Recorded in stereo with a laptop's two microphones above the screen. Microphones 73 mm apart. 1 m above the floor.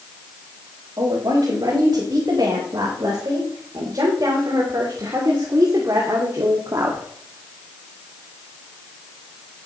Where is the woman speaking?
55° right (ahead or behind), 5.5 m; by 7.1 s 50° right (ahead or behind), 2 m.